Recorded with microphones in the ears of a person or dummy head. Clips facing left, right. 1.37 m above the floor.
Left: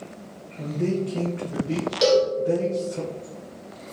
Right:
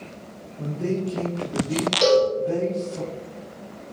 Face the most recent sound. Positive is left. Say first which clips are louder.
# right 1 dB
turn(degrees=5)  # may be behind; listen again after turning